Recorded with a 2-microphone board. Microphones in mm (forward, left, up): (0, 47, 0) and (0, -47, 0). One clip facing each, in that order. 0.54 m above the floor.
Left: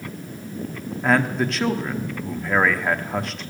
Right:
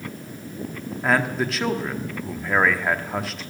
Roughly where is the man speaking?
Centre.